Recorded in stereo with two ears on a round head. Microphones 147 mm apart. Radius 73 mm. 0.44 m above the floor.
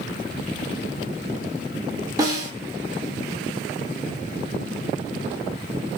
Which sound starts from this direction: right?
A snare drum, at 2.2 s.